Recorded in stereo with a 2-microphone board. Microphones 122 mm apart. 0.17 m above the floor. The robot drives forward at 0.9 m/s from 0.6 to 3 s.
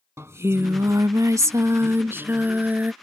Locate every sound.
0.2 s singing: 20° right (ahead or behind); by 2.9 s 10° right (ahead or behind)